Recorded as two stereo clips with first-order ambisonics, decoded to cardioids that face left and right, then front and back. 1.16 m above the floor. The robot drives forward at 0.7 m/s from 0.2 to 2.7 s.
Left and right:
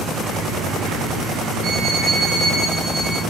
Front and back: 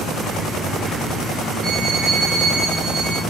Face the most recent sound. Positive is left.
turn(degrees=-155)